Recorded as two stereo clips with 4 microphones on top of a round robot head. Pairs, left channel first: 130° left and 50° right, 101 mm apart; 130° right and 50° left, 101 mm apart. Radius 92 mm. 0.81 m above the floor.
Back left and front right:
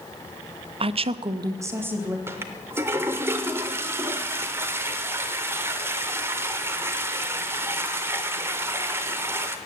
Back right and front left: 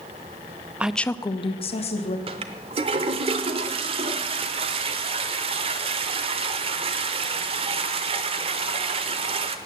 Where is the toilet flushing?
20° left, 0.7 m.